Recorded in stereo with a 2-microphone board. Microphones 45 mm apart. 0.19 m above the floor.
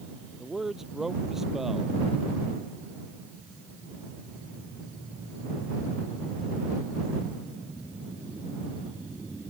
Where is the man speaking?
5° right (ahead or behind).